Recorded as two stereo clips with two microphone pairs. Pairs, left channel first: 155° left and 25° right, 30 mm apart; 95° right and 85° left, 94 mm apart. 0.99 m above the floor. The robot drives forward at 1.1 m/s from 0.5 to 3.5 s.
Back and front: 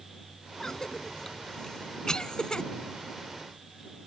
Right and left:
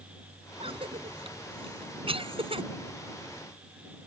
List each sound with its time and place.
0.6 s a cough: 85° left; by 2.7 s 95° left